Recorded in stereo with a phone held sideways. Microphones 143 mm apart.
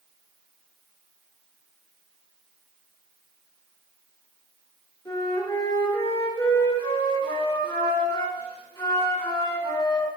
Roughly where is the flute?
Left.